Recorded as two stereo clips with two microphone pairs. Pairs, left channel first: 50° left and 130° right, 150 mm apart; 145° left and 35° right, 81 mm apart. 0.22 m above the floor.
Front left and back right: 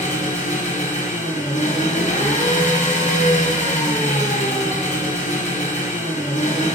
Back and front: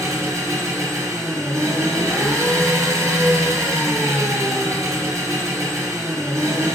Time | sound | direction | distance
0.0 | an engine running | 15° left | 3 m